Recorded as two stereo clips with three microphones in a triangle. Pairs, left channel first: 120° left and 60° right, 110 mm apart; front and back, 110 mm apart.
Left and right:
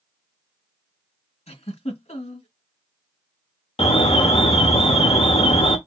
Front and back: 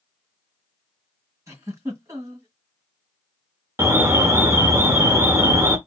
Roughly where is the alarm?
Behind left.